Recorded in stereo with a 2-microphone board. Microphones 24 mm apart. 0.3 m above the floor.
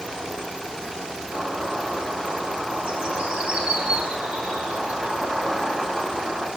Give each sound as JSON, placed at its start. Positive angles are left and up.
{"t": 1.3, "sound": "a bird", "side_deg": -75, "distance_m": 7.5}